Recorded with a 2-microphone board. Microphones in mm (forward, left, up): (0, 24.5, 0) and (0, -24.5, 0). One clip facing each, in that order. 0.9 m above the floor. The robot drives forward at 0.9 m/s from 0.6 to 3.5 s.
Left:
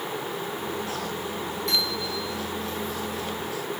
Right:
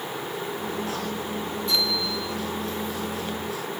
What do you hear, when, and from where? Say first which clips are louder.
1.7 s a bicycle bell: right 2 dB; 75° left (ahead or behind), 9.5 m; by 2.2 s 80° left, 9 m